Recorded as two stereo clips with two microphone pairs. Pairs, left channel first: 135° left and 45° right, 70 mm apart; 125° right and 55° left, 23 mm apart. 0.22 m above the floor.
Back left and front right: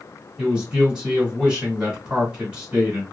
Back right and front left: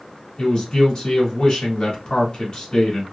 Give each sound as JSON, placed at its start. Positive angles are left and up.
{"t": 0.4, "sound": "a man speaking", "azimuth_deg": -110, "distance_m": 1.3}